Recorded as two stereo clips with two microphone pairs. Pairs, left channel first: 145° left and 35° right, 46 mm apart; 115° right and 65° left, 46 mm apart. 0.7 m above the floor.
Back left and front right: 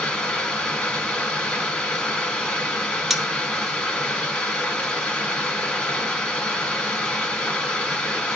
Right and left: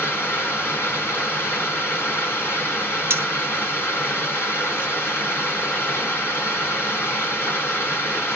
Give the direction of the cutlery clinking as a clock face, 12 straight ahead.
10 o'clock.